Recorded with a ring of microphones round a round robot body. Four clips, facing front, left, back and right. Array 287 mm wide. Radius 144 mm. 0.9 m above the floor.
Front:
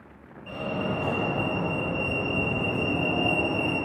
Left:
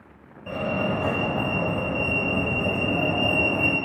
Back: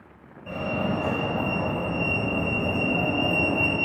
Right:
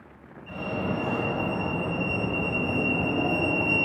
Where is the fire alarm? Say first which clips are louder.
Left 4 dB, back 2 dB; 105° left, 6.5 m.